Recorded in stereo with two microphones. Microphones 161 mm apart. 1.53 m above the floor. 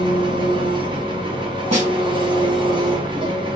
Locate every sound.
0.0 s an engine running: 30° right (ahead or behind), 0.7 m
1.7 s a snare drum: 45° right (ahead or behind), 1.7 m